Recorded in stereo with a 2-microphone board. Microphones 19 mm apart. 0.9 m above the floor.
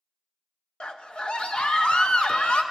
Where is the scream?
70° left (ahead or behind), 0.7 m.